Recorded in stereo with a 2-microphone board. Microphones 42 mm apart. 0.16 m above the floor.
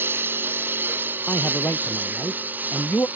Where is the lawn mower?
60° right (ahead or behind); by 3.2 s 45° right (ahead or behind).